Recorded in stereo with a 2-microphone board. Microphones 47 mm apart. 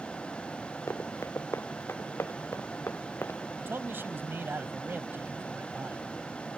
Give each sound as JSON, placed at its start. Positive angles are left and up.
{"t": 0.9, "sound": "running footsteps", "side_deg": 80}
{"t": 3.6, "sound": "a man speaking", "side_deg": -55}